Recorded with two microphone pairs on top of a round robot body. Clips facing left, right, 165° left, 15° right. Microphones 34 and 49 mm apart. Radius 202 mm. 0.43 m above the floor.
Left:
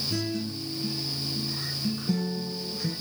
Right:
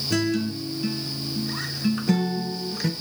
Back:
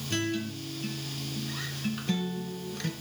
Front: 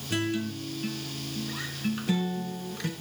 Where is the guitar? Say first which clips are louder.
Right 11 dB, front 2 dB; 100° right, 2.5 m.